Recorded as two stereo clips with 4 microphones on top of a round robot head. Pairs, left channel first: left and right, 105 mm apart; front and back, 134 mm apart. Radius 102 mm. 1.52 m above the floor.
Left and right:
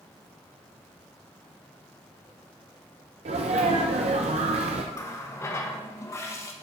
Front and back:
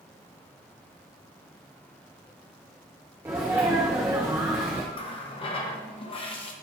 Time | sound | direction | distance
3.2 | a sneeze | 100° right | 0.5 m
4.9 | a running tap | 35° left | 0.9 m